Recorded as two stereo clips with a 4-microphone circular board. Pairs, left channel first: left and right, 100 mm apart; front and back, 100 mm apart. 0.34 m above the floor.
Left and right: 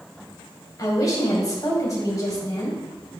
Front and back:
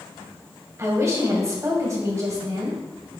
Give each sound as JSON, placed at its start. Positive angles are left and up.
{"t": 0.8, "sound": "a woman speaking", "azimuth_deg": 130, "distance_m": 2.5}